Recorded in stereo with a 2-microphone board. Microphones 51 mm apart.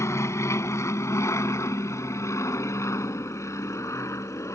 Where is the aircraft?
65° left (ahead or behind); by 4.6 s 75° left (ahead or behind).